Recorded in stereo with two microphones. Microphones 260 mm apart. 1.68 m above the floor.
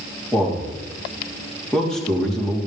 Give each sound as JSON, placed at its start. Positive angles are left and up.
{"t": 0.3, "sound": "a man speaking", "side_deg": 0, "distance_m": 4.0}